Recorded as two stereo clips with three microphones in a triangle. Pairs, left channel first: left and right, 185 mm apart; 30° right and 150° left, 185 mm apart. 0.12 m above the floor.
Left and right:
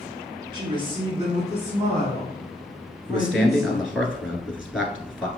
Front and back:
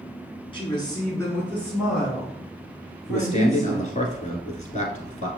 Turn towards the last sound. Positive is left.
turn(degrees=-10)